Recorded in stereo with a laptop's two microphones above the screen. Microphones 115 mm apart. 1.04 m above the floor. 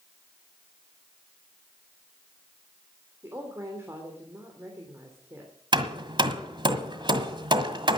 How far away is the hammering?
About 1.7 m.